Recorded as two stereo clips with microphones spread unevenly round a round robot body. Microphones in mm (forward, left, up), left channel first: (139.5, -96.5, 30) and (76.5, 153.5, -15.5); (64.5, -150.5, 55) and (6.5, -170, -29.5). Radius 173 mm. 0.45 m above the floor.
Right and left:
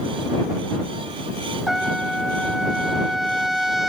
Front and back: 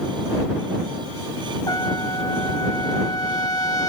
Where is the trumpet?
15° left.